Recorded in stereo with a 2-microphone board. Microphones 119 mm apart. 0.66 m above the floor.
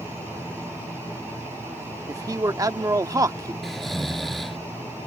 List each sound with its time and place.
2.1 s a man speaking: 30° right (ahead or behind)
3.6 s snoring: centre (ahead or behind)